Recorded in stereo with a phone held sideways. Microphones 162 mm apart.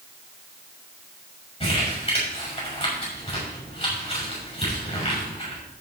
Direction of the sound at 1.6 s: 40° left (ahead or behind).